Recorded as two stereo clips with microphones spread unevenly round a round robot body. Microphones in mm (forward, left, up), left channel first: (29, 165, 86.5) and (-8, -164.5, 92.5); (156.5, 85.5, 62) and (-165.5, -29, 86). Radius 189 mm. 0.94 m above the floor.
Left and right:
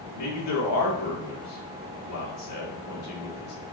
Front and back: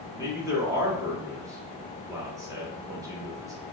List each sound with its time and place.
0.1 s a man speaking: 120° left, 1.9 m